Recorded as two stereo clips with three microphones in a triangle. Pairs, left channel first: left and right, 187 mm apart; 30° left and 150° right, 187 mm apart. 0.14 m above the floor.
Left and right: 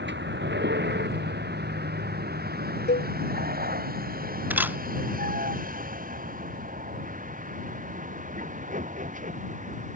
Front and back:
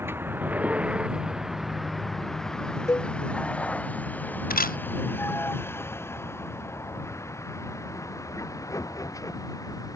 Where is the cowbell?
105° left.